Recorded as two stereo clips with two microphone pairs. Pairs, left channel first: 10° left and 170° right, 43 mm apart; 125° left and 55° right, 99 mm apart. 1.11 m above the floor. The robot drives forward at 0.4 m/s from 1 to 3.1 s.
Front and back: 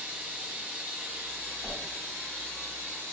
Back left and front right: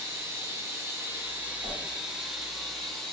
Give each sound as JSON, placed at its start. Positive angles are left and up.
{"t": 0.0, "sound": "running water", "azimuth_deg": -115, "distance_m": 1.0}
{"t": 1.6, "sound": "a whoosh", "azimuth_deg": -60, "distance_m": 1.7}